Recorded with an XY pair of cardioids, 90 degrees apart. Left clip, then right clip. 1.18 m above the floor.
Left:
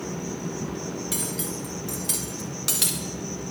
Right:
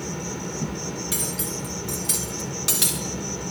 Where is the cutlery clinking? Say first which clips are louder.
Right 2 dB; straight ahead, 2.5 m.